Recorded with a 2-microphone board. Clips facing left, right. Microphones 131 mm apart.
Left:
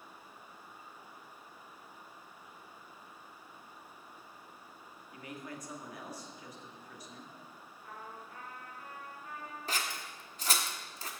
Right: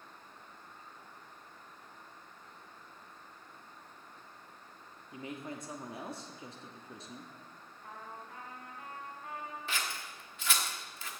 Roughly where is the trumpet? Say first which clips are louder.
Right 1 dB; right.